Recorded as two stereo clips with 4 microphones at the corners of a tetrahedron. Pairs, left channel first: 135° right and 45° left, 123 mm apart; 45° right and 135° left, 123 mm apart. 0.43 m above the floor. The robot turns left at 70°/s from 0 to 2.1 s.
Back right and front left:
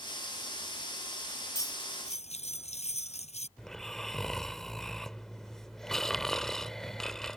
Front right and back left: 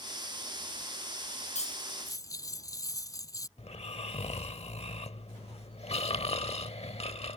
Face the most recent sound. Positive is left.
turn(degrees=-50)